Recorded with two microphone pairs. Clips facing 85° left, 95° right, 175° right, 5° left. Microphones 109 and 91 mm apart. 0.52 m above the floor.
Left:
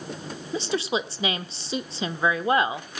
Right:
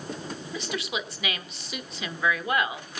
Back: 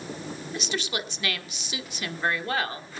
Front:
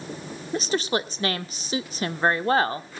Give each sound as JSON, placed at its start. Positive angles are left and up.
{"t": 0.5, "sound": "a woman speaking", "azimuth_deg": 40, "distance_m": 1.3}